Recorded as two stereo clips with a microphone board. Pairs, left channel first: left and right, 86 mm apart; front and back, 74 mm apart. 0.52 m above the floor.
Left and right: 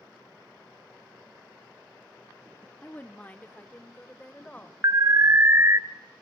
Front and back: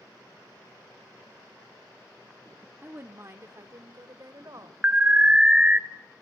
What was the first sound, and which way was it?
A woman speaking, 140° left.